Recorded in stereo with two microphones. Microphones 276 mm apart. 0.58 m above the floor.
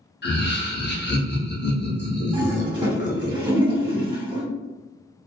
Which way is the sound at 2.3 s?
15° right (ahead or behind).